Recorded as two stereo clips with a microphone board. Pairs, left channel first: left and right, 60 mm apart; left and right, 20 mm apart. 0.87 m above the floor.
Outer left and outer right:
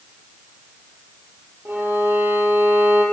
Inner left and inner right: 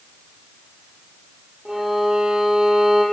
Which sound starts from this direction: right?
A violin, at 1.6 s.